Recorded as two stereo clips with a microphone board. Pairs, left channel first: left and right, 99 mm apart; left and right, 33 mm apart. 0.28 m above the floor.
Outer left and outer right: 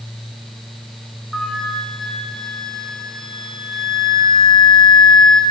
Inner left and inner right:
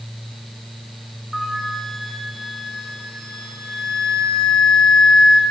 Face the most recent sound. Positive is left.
turn(degrees=5)  # may be behind; listen again after turning